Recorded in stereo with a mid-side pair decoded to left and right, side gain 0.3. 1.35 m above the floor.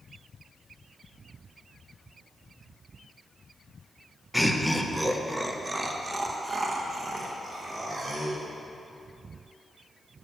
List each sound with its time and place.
4.3 s laughter: 10° left, 1.2 m; by 8.4 s 65° right, 2.5 m